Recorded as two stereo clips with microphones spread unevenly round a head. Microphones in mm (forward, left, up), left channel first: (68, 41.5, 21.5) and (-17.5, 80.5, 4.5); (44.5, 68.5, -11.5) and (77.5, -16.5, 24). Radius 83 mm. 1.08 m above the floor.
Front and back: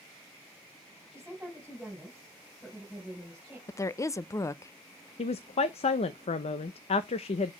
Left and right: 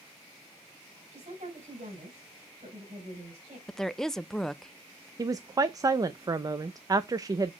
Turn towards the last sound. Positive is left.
turn(degrees=-10)